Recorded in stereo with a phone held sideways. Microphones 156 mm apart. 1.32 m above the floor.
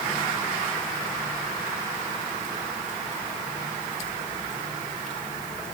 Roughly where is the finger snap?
I don't hear a finger snap.